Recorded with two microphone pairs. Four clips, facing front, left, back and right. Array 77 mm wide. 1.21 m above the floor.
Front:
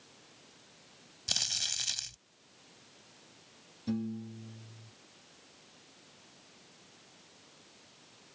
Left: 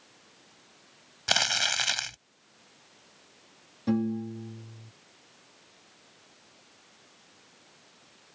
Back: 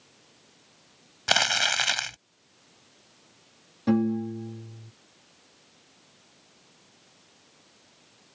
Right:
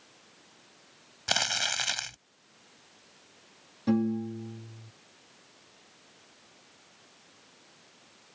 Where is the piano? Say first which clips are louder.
Right 1 dB, back 12 dB; 175° right.